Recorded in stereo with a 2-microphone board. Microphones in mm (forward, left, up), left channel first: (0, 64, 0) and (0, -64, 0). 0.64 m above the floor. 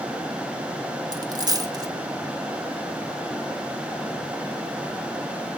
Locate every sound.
1.1 s a dropped coin: 30° right (ahead or behind), 1.0 m